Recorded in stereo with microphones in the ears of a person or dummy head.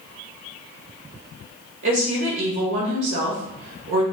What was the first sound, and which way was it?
A woman speaking, 70° right (ahead or behind).